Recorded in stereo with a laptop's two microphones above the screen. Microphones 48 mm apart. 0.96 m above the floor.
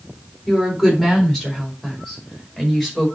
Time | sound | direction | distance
0.5 | a woman speaking | 5° left (ahead or behind) | 3.5 m